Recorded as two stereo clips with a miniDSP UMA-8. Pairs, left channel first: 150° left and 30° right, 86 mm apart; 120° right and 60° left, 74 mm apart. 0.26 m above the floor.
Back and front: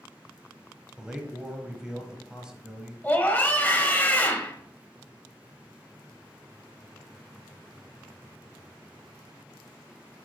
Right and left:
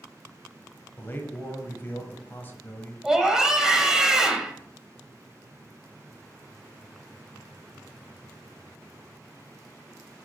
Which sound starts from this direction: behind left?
A scream, at 3.0 s.